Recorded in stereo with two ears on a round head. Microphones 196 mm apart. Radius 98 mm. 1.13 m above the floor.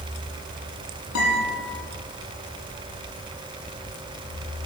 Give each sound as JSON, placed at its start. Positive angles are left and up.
{"t": 1.1, "sound": "a guitar", "side_deg": 70, "distance_m": 8.0}